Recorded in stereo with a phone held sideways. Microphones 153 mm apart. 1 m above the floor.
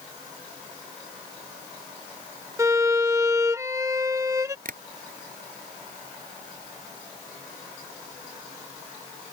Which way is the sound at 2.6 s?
20° right (ahead or behind).